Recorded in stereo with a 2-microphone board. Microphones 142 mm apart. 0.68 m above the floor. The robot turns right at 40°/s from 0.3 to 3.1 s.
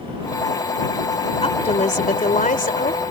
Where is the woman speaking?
45° left; by 3.0 s 110° left.